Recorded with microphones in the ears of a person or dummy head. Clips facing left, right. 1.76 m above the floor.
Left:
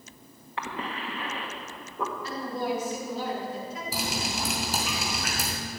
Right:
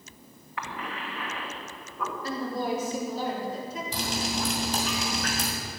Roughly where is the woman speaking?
Right.